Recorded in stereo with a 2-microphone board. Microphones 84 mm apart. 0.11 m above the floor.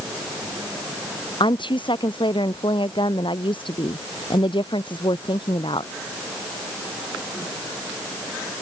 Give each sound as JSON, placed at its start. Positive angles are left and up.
{"t": 1.4, "sound": "a woman speaking", "side_deg": 75}